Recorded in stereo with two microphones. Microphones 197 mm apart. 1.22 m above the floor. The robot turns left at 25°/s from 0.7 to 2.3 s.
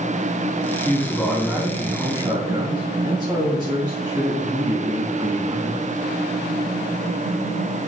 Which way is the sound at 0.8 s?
15° left.